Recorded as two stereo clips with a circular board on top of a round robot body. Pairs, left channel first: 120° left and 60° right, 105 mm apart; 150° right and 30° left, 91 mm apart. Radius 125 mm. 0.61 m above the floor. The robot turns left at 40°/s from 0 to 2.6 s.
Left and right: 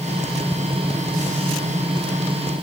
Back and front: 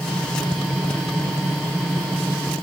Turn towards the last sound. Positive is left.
No sound to turn to.